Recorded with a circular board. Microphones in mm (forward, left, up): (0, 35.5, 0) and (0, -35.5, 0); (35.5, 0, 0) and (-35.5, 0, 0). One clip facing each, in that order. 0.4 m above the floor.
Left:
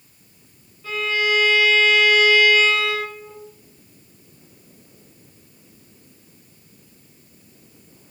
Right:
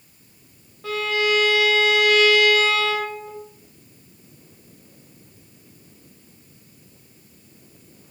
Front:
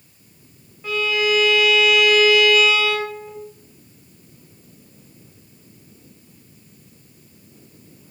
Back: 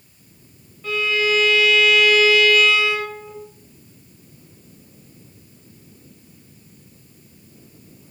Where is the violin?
75° right, 0.7 m.